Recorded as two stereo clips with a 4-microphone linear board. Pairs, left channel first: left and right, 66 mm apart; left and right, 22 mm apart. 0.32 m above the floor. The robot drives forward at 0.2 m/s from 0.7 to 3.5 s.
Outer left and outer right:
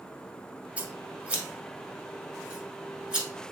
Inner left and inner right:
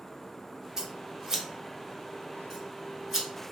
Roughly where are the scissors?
Right.